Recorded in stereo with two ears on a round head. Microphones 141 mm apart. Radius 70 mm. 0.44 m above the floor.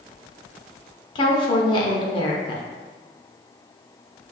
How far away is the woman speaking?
About 0.9 m.